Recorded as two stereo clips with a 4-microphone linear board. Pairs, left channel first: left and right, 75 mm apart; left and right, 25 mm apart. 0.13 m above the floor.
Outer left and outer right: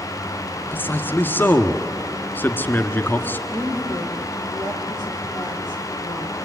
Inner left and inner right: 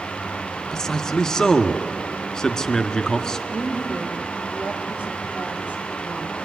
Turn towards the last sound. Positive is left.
turn(degrees=-40)  # may be behind; listen again after turning